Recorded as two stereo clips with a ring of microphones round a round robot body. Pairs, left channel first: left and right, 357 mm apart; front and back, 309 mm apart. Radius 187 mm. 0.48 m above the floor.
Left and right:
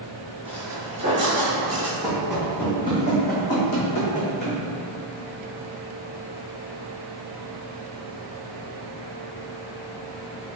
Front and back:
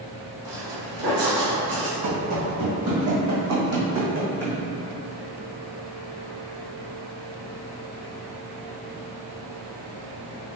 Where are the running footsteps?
170° right, 1.6 m; by 4.6 s 120° left, 1.8 m.